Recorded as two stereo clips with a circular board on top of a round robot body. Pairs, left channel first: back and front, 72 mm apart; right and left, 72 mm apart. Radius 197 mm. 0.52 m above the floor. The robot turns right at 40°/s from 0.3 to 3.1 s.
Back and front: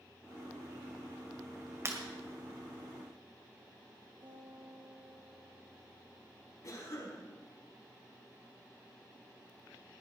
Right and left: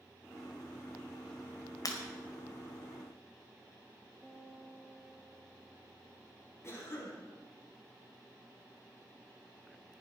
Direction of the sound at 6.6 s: 140° right.